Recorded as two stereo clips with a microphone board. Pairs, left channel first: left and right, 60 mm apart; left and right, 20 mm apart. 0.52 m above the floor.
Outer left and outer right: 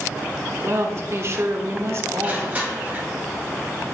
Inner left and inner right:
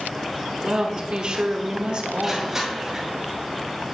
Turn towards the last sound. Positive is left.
turn(degrees=-30)  # may be behind; listen again after turning